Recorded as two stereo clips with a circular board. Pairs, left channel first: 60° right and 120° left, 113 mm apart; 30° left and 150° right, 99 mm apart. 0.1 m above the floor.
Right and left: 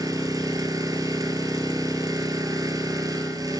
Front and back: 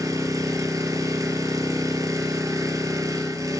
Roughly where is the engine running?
Behind.